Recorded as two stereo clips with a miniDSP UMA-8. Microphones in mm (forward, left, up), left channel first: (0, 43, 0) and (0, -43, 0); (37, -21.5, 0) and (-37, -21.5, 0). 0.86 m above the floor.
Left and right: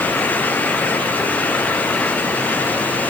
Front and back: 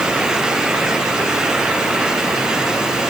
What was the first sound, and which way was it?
Only background noise.